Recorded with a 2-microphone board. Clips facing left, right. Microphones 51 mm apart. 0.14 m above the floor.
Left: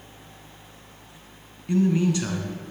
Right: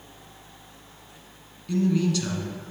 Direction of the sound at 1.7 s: 25° left (ahead or behind).